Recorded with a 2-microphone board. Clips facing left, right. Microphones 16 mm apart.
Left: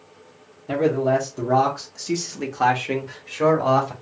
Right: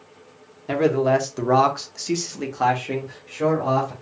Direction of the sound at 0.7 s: 50° right (ahead or behind).